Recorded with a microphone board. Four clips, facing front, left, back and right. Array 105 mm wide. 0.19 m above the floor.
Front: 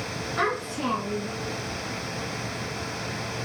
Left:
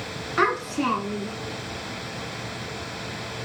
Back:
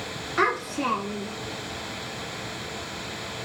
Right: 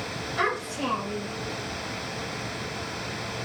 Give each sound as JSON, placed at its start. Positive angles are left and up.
{"t": 0.4, "sound": "a child speaking", "azimuth_deg": 110, "distance_m": 1.4}